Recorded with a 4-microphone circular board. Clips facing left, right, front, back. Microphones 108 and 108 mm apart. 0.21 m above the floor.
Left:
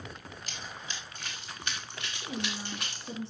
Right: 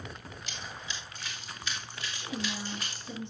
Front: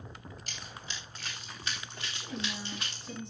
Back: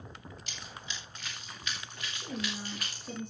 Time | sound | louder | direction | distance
0.5 | running footsteps | right 1 dB, even | 50° left | 9.5 m
2.1 | a woman speaking | even, back 1 dB | 140° left | 3.5 m